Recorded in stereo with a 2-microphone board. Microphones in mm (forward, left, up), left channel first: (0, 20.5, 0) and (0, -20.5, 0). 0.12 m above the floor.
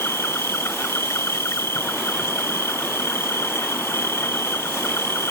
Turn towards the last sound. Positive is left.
turn(degrees=80)